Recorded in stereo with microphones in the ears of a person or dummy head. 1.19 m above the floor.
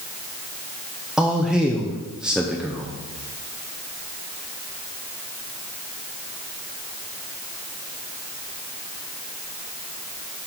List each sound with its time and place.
1.2 s a man speaking: 5° right (ahead or behind), 0.6 m